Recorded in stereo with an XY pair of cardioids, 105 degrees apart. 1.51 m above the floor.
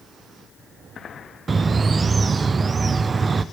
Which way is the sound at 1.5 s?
30° right.